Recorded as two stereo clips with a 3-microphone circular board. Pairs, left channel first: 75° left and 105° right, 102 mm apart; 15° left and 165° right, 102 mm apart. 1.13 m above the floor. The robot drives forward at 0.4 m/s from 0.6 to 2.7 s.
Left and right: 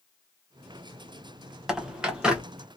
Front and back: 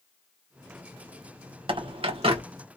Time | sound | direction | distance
1.7 | a bird | 170° left | 0.6 m